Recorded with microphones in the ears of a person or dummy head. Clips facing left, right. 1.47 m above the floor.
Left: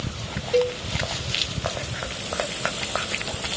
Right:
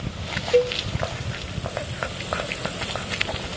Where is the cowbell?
20° right (ahead or behind), 2 m.